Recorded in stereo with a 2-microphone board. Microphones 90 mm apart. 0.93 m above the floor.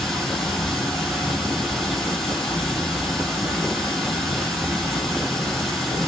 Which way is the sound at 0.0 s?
10° left (ahead or behind).